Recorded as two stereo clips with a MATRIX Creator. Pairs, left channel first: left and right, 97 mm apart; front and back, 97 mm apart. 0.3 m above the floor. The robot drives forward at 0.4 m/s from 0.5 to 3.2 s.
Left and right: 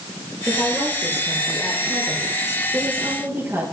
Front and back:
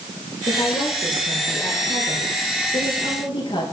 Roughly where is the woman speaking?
Ahead.